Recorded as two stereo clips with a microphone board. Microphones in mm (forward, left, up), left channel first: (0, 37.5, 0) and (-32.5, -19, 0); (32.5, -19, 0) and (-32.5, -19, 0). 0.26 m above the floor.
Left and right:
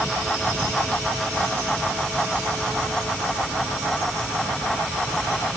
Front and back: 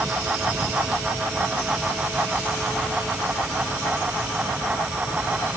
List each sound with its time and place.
Only background noise.